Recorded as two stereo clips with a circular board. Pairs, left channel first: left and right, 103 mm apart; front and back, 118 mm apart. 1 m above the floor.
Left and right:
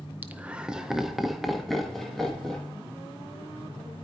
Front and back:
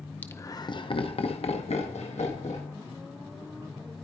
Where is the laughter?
45° right, 0.5 m; by 2.7 s 5° left, 1.7 m.